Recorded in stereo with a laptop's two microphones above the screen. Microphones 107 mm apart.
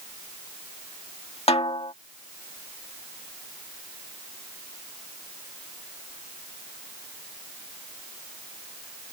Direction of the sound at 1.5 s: 65° left (ahead or behind).